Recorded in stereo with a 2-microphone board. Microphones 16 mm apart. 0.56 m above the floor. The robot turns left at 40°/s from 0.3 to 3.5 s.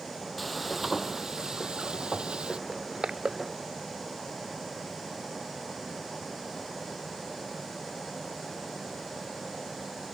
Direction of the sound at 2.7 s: 85° right.